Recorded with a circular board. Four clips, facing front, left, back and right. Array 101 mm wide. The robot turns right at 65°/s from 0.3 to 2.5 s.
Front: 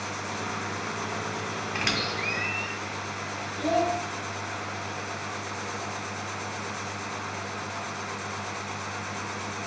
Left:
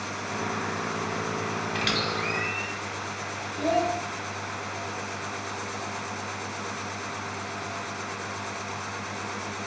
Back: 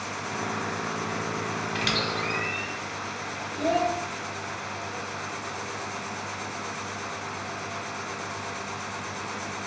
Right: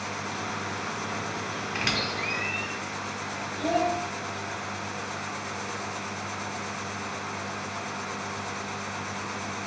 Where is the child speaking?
130° left, 0.9 m.